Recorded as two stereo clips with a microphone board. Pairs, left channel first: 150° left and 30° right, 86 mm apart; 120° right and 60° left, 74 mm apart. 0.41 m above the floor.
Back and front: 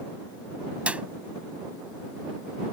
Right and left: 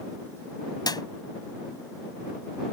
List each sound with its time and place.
0.9 s a clap: 105° right